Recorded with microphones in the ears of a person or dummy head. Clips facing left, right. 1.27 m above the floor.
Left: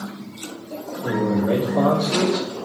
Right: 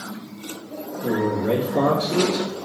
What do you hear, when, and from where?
1.0 s a man speaking: 40° right (ahead or behind), 1.0 m